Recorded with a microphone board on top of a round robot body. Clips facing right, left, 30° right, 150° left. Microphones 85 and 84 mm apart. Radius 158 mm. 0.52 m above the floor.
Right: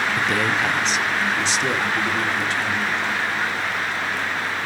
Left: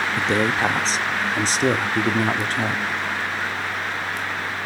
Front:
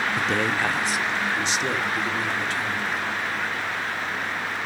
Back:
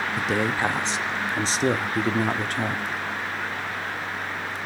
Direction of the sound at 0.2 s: 65° left.